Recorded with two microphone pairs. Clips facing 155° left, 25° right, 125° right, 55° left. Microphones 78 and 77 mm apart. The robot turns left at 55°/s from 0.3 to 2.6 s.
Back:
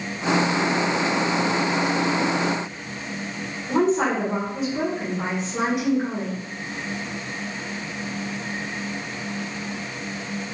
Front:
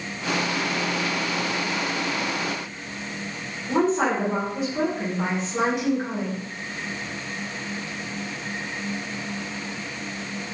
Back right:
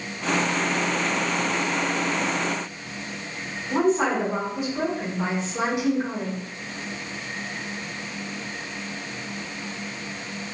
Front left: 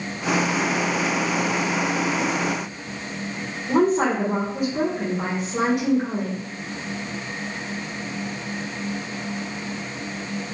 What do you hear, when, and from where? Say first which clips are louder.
3.7 s a woman speaking: back 1 dB, front left 2 dB; 60° left, 0.7 m